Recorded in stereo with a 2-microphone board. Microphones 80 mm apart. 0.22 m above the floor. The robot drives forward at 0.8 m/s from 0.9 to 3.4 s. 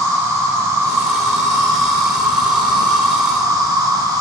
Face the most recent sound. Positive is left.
turn(degrees=-55)  # may be behind; listen again after turning